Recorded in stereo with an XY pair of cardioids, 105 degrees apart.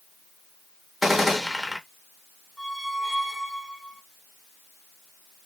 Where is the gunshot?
10° left, 1.0 m.